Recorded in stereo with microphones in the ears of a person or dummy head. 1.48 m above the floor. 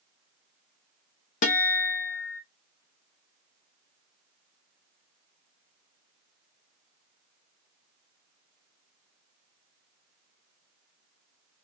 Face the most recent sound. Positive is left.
turn(degrees=40)  # may be behind; listen again after turning